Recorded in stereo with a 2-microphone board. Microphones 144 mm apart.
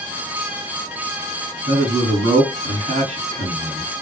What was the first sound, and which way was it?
A man speaking, 45° right (ahead or behind).